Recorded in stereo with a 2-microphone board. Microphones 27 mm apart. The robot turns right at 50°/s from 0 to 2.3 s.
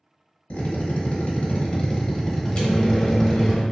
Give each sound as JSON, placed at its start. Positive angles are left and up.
{"t": 0.5, "sound": "a drill", "azimuth_deg": 80, "distance_m": 0.9}
{"t": 2.5, "sound": "a microwave", "side_deg": 40, "distance_m": 0.8}